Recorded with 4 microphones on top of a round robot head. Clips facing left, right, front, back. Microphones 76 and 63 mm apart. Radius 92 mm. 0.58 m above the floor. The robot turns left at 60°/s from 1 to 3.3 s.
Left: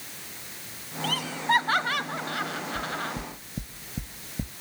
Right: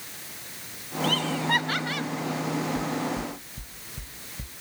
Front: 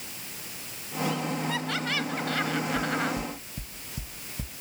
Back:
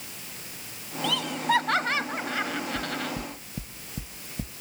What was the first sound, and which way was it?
Laughter, straight behind.